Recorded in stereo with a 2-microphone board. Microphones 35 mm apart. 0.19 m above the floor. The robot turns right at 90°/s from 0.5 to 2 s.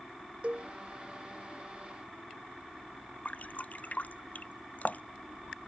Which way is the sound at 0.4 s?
40° right (ahead or behind).